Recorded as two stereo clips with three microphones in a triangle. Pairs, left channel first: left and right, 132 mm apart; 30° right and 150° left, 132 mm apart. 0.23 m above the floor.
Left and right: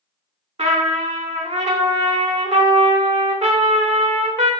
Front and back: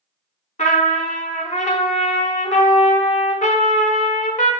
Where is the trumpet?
55° right, 0.5 m.